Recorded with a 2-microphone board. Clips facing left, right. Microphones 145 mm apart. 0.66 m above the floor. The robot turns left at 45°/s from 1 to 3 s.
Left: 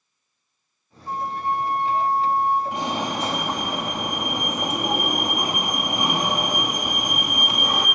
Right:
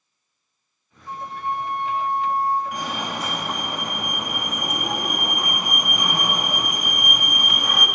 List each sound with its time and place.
1.1 s a flute: 95° left, 0.8 m; by 2.6 s 25° left, 0.8 m
2.7 s a fire alarm: 25° left (ahead or behind), 1.6 m; by 7.9 s 30° left (ahead or behind), 1.6 m